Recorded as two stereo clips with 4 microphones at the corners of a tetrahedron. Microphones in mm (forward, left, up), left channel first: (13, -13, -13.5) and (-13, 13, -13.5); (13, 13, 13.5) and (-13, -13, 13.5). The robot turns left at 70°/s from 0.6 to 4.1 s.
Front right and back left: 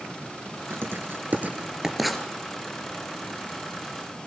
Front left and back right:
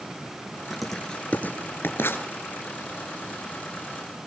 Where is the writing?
145° left, 2.5 m; by 2.2 s 35° left, 2.5 m.